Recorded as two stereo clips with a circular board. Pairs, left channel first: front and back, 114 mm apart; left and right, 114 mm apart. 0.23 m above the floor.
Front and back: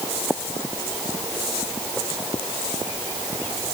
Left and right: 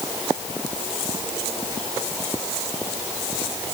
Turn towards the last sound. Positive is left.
No sound to turn to.